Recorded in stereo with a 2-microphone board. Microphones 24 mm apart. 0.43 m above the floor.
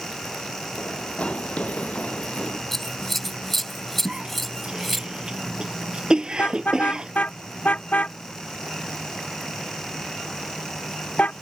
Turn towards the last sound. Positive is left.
turn(degrees=80)